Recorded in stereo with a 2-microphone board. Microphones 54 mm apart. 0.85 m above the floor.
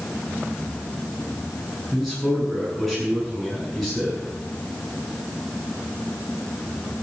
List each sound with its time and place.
1.9 s a man speaking: 5° left (ahead or behind), 9 m